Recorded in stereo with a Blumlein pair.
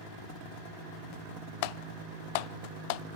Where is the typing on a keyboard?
45° left, 0.5 m.